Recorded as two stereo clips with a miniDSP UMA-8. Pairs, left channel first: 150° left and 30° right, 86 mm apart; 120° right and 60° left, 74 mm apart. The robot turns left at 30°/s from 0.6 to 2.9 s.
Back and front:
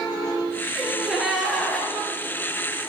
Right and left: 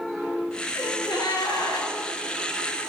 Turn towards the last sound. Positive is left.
turn(degrees=-170)